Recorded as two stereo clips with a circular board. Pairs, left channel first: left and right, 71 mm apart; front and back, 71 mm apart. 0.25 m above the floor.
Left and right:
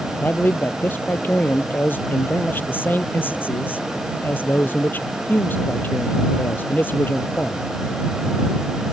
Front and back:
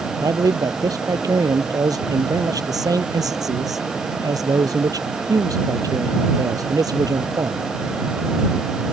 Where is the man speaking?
150° left.